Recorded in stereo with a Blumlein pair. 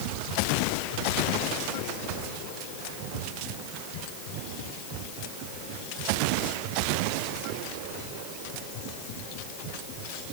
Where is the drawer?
I don't hear a drawer.